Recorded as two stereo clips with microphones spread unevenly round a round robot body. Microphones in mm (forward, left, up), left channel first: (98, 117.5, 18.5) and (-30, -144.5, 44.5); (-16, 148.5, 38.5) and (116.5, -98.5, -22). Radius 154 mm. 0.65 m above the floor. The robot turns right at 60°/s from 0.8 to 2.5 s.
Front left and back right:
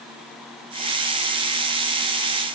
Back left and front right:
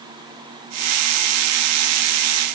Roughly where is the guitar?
No guitar in this recording.